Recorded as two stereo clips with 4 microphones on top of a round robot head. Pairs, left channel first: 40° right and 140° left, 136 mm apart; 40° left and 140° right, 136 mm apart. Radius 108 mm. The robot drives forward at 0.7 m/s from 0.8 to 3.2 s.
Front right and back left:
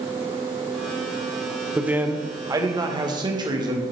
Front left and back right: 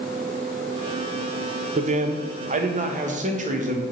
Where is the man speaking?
140° right, 0.9 m; by 3.8 s 165° right, 1.7 m.